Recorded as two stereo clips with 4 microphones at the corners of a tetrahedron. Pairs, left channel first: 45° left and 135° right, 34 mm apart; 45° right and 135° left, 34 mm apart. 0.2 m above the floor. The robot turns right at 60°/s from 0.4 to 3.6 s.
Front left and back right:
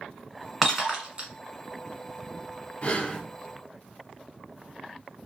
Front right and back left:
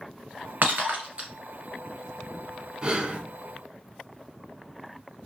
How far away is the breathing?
About 0.7 m.